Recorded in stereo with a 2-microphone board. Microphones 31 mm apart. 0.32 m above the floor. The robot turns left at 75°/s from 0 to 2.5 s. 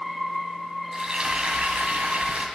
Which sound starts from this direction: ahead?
Frying, at 0.9 s.